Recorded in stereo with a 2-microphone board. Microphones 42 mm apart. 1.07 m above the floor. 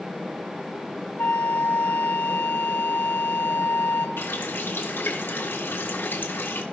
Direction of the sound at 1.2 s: 55° left (ahead or behind).